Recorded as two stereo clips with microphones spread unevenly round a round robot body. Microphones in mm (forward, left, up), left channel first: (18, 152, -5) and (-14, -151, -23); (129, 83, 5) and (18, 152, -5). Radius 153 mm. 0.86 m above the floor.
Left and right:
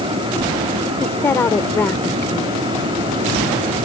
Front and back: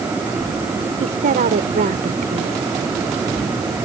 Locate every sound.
1.0 s a woman speaking: 165° left